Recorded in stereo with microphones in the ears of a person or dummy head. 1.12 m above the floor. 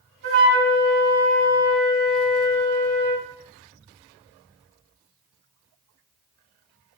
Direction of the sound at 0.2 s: 70° right (ahead or behind).